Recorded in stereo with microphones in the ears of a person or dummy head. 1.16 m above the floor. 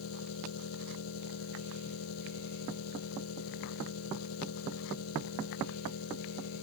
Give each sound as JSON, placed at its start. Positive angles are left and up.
{"t": 0.0, "sound": "an engine running", "side_deg": 85}